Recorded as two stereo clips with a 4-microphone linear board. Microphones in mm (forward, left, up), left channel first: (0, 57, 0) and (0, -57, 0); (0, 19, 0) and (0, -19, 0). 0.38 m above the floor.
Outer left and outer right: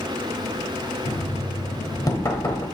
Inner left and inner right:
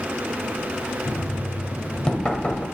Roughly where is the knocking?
Left.